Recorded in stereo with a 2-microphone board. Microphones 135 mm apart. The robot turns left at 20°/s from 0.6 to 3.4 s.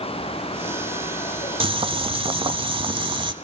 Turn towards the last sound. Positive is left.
turn(degrees=-115)